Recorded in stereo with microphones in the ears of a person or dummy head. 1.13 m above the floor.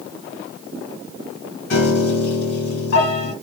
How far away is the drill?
No drill in this recording.